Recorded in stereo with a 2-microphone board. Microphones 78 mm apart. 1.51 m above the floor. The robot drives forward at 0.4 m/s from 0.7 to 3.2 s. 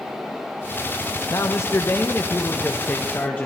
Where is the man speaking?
45° left (ahead or behind), 0.8 m; by 3.5 s 25° left (ahead or behind), 1.4 m.